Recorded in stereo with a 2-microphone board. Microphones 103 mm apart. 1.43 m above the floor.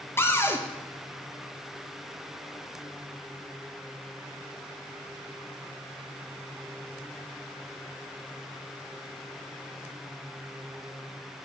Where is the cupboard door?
20° left (ahead or behind), 0.6 m.